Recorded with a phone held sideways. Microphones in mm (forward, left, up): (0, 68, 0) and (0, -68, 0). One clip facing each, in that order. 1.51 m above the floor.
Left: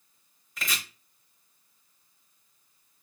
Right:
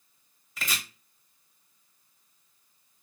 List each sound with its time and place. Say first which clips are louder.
0.6 s chopping: even; 5° right (ahead or behind), 0.9 m